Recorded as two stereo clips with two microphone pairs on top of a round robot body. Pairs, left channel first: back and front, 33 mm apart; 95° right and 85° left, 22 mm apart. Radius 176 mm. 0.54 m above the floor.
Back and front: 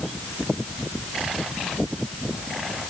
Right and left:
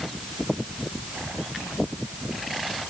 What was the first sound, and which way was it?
Only background noise.